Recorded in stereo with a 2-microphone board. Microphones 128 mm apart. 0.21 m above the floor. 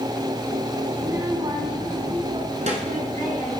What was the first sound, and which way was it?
A child speaking, 15° right (ahead or behind).